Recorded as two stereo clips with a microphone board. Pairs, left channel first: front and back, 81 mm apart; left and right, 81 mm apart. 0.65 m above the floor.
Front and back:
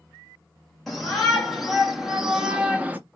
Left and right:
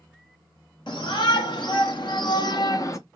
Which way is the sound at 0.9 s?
90° left.